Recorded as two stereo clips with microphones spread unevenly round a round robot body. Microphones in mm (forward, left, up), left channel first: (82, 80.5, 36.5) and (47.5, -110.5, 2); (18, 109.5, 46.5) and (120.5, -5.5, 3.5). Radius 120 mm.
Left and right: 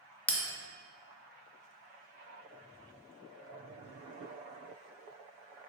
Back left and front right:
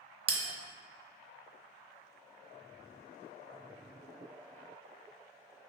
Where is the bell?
10° right, 0.5 m.